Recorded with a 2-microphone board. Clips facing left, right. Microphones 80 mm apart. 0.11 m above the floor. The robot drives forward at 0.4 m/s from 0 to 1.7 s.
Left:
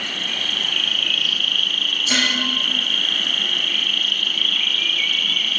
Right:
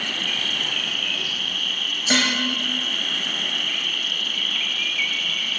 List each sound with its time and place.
0.0 s an insect: 40° left (ahead or behind), 0.8 m; by 5.6 s 65° left (ahead or behind), 0.6 m
2.1 s dishes clattering: 55° right (ahead or behind), 1.3 m